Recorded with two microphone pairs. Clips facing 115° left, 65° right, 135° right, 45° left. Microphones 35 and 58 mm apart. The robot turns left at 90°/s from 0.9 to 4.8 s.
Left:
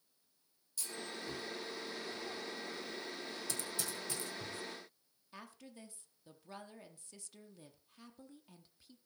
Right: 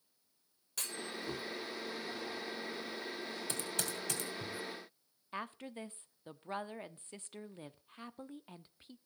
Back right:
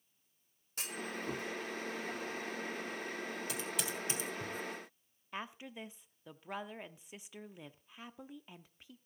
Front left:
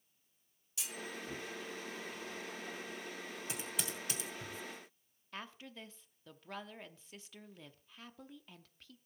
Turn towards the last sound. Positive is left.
turn(degrees=-70)